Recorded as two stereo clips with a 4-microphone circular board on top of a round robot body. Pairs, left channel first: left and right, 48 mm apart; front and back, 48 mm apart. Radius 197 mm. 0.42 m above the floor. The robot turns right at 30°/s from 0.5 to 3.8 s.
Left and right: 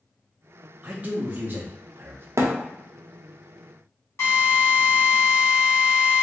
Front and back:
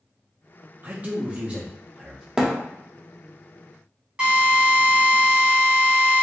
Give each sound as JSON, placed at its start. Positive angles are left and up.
{"t": 0.8, "sound": "a man speaking", "azimuth_deg": -140, "distance_m": 0.9}
{"t": 2.4, "sound": "a thud", "azimuth_deg": -100, "distance_m": 0.8}
{"t": 4.2, "sound": "a drill", "azimuth_deg": 110, "distance_m": 1.9}